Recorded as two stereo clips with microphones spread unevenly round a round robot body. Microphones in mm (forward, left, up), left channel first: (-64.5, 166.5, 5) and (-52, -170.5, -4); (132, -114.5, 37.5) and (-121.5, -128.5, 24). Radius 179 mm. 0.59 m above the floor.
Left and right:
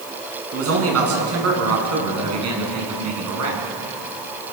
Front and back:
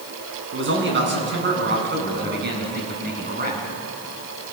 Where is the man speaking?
135° right, 7.5 m; by 3.6 s 125° right, 7 m.